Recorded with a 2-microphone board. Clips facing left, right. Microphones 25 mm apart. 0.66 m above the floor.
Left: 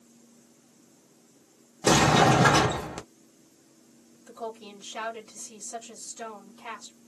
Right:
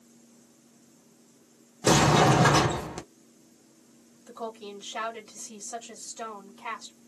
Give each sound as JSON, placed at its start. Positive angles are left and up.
{"t": 1.8, "sound": "a sliding door", "side_deg": 5, "distance_m": 0.7}
{"t": 4.3, "sound": "a woman speaking", "side_deg": -35, "distance_m": 1.5}